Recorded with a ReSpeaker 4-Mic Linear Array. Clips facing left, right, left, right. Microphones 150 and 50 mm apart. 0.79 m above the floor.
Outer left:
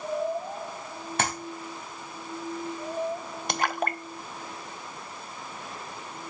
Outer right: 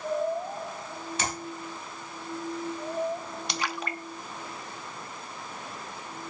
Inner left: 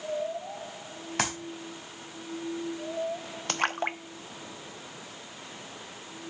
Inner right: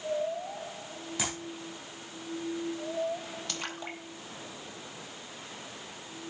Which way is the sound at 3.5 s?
50° left (ahead or behind).